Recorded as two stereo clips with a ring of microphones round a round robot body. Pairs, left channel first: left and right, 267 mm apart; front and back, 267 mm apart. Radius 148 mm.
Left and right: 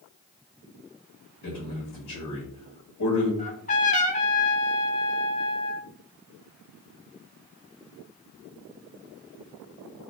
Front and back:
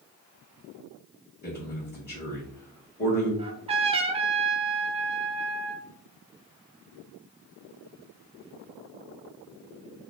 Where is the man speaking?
60° left, 1.4 m.